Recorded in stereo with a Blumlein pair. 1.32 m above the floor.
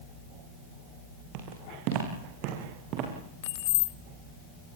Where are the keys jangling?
50° left, 0.7 m.